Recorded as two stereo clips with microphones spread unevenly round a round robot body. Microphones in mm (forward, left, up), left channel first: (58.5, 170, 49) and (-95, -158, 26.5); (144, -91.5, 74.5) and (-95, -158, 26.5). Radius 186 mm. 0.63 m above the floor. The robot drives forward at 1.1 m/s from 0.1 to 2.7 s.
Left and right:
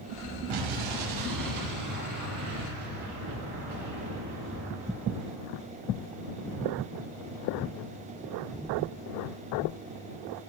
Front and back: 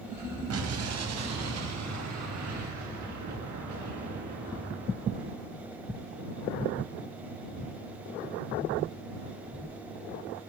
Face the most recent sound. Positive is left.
turn(degrees=-165)